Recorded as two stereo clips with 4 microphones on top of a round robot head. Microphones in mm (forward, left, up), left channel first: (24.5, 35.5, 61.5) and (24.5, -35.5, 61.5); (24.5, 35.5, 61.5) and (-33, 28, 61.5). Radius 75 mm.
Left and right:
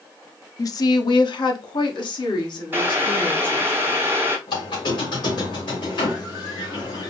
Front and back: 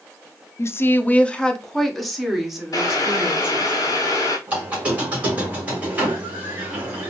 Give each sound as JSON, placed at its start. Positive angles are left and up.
{"t": 0.6, "sound": "a woman speaking", "azimuth_deg": 50, "distance_m": 0.6}
{"t": 2.7, "sound": "boiling", "azimuth_deg": -25, "distance_m": 1.0}
{"t": 4.5, "sound": "a squeak", "azimuth_deg": 120, "distance_m": 1.8}